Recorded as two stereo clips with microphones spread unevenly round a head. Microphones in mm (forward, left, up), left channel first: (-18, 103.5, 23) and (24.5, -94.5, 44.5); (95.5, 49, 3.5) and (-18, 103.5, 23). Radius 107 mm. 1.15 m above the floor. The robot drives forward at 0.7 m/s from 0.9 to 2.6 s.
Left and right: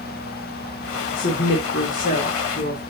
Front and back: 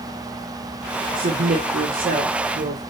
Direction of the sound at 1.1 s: 145° left.